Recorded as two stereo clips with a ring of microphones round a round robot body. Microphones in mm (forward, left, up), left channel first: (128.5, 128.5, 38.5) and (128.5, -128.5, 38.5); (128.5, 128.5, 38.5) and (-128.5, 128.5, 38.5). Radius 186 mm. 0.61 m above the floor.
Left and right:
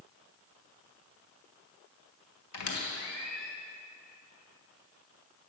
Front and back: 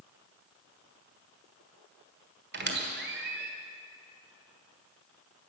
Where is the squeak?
130° left, 1.6 m.